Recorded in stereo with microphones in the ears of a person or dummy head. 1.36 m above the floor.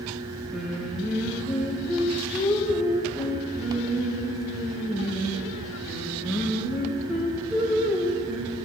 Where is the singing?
5° right (ahead or behind), 1.9 m.